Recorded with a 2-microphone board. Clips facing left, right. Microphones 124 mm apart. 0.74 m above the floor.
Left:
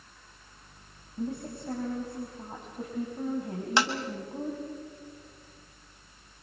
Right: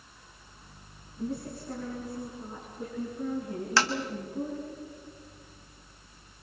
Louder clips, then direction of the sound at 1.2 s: Even; 60° left (ahead or behind).